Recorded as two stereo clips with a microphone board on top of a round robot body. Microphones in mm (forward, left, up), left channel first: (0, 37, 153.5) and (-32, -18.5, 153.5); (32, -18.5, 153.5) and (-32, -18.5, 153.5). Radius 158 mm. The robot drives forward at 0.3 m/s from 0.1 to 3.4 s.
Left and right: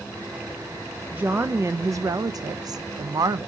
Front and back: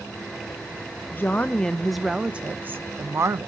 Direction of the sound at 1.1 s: 60° right.